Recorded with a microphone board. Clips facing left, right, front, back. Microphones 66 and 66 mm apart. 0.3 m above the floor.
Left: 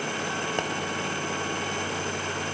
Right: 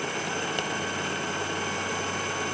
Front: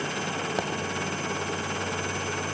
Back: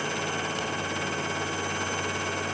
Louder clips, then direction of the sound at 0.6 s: Left 2 dB, front 3 dB; 30° left.